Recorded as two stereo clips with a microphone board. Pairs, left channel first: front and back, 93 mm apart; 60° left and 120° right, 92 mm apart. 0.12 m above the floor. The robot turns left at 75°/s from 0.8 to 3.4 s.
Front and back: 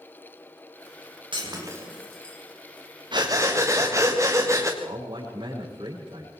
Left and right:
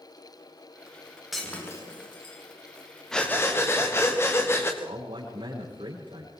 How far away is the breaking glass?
About 7 m.